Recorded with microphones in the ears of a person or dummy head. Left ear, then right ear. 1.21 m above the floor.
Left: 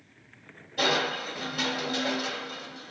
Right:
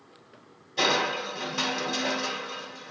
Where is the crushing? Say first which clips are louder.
Right 1 dB; 60° right (ahead or behind), 1.3 m.